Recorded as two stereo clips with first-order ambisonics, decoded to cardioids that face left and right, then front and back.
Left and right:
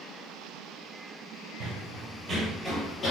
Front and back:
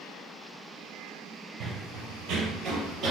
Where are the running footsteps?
140° right, 1.0 m; by 3.1 s 145° left, 0.7 m.